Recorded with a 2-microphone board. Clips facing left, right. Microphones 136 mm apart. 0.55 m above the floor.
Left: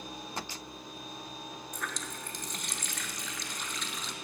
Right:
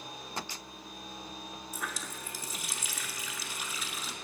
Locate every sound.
1.7 s a running tap: 5° right (ahead or behind), 0.8 m